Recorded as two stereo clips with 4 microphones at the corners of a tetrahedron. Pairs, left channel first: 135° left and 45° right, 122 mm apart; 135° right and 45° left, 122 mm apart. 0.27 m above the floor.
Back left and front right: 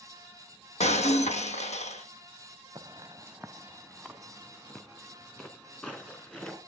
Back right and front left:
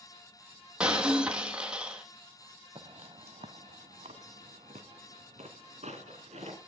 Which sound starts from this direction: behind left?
Breaking glass, at 0.8 s.